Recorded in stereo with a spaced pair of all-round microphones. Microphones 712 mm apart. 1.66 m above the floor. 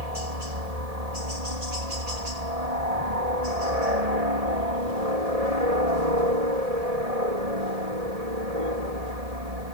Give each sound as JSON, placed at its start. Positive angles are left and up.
{"t": 0.0, "sound": "a helicopter", "side_deg": -60}